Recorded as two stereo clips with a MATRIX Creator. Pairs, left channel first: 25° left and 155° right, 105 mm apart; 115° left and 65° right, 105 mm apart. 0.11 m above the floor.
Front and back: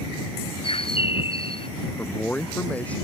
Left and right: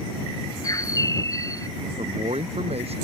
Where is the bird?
55° left.